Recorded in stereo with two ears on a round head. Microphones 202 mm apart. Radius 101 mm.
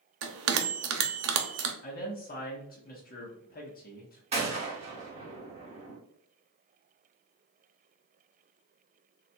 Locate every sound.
0.2 s a bell: 65° right (ahead or behind), 0.7 m
1.8 s a man speaking: 40° left (ahead or behind), 0.9 m
4.3 s a gunshot: 25° right (ahead or behind), 1.2 m